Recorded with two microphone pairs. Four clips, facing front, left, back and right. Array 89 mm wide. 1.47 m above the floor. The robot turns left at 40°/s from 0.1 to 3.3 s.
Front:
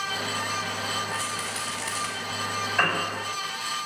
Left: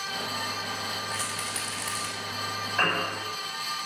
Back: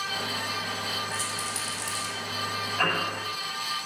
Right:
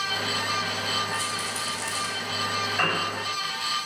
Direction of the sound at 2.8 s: 20° left.